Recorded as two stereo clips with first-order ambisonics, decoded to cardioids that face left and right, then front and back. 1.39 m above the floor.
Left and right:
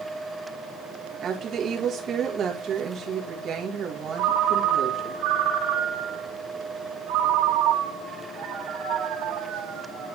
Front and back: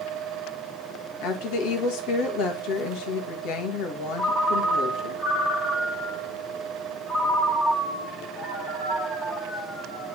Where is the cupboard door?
No cupboard door in this recording.